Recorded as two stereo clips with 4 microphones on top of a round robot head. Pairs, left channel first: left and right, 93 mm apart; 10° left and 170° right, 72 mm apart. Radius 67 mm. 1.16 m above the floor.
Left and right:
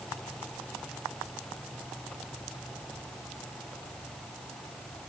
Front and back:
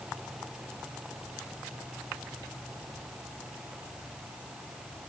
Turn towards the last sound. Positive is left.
No sound to turn to.